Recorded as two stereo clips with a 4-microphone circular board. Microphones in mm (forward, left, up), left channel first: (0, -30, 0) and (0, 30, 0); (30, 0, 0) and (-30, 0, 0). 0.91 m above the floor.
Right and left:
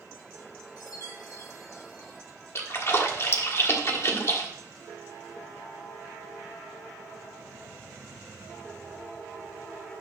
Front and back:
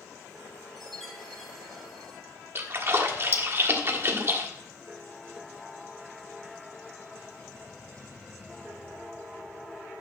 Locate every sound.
0.8 s a chime: 90° right, 1.9 m
2.5 s a splash: 130° right, 1.4 m